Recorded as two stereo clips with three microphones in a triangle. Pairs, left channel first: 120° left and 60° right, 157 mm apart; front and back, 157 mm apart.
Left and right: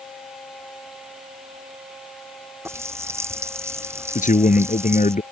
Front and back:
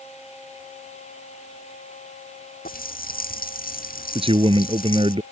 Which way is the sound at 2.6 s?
10° left.